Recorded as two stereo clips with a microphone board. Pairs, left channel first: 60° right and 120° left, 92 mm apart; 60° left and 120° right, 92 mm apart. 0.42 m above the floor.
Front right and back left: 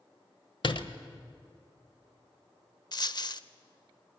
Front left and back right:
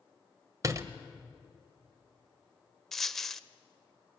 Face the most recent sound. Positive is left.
turn(degrees=-25)